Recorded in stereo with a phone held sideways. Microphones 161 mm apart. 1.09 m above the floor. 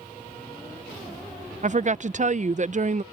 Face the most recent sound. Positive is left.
turn(degrees=-50)  # may be behind; listen again after turning